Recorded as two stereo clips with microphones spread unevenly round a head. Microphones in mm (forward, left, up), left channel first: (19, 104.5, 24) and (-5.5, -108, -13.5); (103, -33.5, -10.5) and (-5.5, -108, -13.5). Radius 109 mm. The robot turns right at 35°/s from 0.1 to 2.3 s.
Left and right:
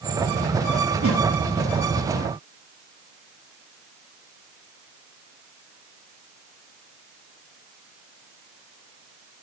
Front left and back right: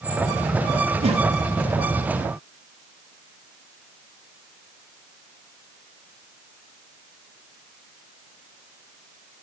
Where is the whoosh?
110° right, 1.5 m; by 1.3 s 105° right, 1.5 m.